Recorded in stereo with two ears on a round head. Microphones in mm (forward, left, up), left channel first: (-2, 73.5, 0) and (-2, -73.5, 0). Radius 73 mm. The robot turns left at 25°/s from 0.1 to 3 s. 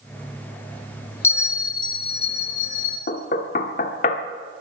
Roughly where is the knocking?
Left.